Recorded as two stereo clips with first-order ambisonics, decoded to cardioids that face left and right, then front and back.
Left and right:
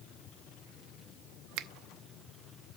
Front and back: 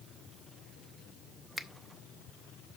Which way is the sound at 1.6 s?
90° right.